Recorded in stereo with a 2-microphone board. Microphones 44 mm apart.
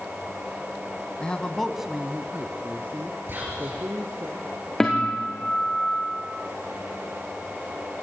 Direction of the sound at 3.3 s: 55° right (ahead or behind).